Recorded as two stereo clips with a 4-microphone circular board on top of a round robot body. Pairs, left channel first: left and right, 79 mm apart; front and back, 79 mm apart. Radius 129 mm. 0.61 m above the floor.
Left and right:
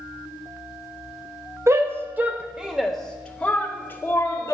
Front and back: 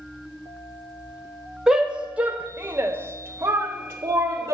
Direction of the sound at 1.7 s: 105° right.